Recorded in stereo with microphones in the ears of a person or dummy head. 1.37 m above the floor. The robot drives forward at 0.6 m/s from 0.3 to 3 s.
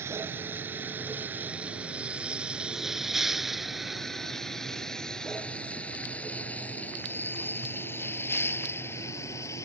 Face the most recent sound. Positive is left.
turn(degrees=15)  # may be behind; listen again after turning